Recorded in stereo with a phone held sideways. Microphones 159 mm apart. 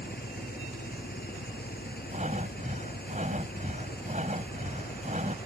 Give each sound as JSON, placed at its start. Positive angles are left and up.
{"t": 0.0, "sound": "an engine running", "side_deg": 85}
{"t": 2.1, "sound": "breathing", "side_deg": -50}